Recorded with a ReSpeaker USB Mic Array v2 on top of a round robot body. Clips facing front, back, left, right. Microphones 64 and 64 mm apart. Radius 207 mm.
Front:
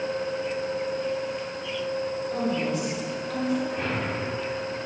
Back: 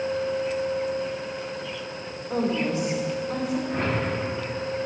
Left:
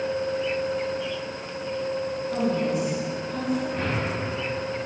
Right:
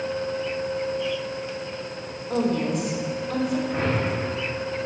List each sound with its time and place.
2.3 s a woman speaking: 130° right, 2.5 m; by 3.6 s 110° right, 3 m
3.7 s a whoosh: 145° right, 2.5 m